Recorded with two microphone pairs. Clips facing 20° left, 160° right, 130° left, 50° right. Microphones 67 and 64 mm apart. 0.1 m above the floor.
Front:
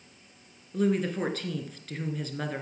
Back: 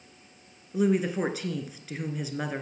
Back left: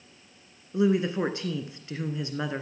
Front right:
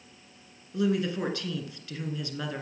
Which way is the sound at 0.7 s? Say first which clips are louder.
Back 2 dB, back left 3 dB; 130° left.